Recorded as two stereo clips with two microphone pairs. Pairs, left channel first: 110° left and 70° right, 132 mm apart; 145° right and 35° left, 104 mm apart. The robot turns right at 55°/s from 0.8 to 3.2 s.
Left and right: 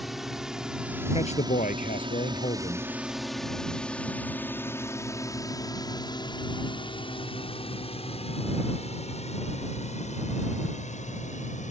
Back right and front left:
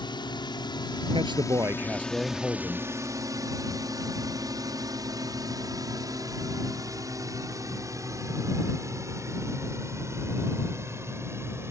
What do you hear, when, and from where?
0.0 s a drone: 160° right; by 11.7 s 100° left
1.1 s a man speaking: 70° left; by 2.9 s 165° left